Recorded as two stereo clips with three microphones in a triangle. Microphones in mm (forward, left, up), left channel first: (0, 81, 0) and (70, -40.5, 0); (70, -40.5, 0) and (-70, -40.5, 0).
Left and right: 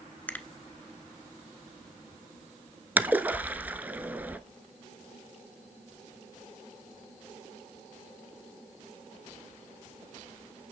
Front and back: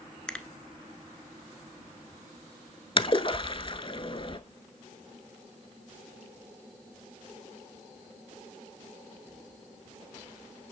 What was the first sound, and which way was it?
A finger snap, 70° left.